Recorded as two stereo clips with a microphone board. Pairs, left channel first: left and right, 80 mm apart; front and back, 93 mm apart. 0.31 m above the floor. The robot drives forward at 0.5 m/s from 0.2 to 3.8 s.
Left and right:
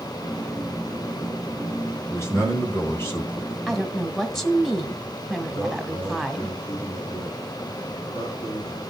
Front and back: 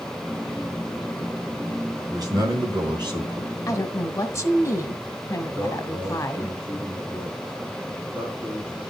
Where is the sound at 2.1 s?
140° left, 2.5 m; by 3.6 s 150° left, 3 m.